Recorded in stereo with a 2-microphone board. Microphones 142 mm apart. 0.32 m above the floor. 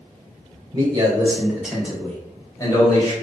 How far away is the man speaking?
About 1.2 m.